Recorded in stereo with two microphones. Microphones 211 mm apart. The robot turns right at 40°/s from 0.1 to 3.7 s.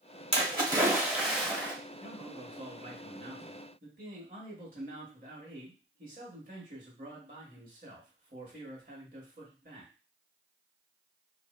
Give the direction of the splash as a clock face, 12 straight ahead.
1 o'clock.